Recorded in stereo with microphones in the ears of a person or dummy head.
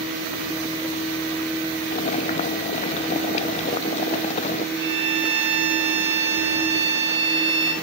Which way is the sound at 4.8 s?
55° right (ahead or behind).